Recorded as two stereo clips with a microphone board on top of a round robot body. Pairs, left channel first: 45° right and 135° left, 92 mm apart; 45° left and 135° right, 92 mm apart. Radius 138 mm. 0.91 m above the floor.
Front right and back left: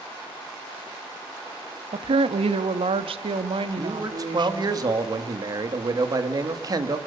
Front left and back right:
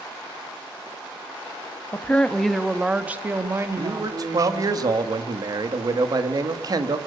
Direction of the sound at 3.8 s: Straight behind.